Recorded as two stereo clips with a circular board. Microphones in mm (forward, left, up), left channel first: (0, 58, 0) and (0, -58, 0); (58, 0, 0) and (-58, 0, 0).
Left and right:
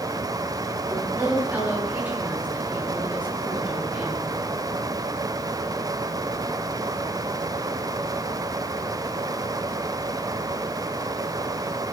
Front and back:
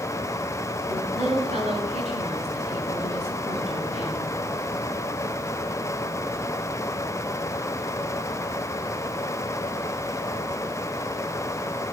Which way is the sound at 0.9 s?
165° right.